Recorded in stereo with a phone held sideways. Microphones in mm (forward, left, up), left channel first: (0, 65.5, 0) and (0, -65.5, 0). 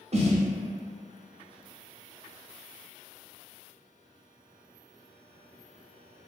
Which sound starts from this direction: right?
A snare drum, at 0.1 s.